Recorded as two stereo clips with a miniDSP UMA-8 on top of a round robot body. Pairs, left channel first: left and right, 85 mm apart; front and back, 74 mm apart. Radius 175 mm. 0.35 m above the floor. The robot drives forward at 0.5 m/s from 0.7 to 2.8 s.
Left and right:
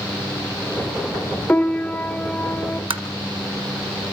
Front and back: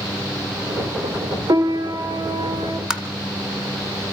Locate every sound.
1.5 s a piano: 160° left, 1.6 m; by 2.8 s 165° left, 2 m
2.9 s tapping: 100° right, 1.1 m